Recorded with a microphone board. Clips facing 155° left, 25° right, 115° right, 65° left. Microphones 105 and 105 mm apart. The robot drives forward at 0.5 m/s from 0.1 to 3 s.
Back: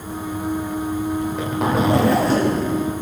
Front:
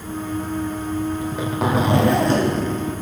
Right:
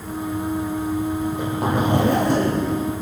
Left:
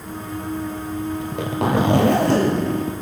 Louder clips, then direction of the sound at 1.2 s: Back 1 dB, even; 65° left.